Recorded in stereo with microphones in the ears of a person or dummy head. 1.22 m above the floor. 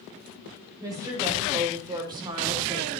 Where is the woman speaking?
20° right (ahead or behind), 6 m; by 3.0 s 25° right (ahead or behind), 3.5 m.